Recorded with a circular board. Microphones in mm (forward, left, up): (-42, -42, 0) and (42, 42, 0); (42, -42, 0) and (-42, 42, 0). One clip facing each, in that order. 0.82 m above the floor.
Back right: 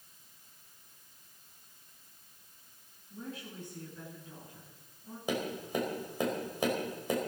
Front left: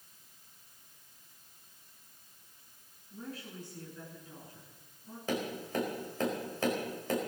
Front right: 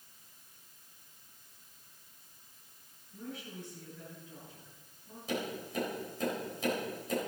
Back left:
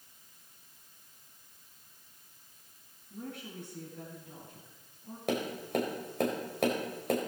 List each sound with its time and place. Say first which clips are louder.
3.1 s a woman speaking: even, back left 2 dB; 160° left, 8.5 m
5.3 s tapping: back right 1 dB, back left 5 dB; 150° left, 4.5 m